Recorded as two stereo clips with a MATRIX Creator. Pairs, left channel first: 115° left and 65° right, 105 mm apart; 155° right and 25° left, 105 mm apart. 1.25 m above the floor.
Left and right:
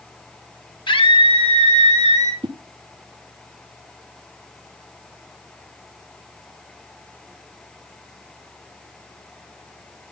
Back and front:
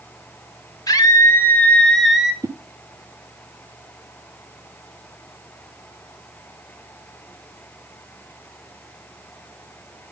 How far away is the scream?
About 2.5 m.